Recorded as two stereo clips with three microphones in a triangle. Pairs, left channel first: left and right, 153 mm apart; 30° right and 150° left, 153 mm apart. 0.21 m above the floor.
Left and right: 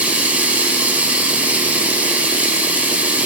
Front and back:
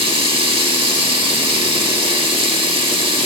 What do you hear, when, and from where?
0.0 s running water: 165° right, 0.7 m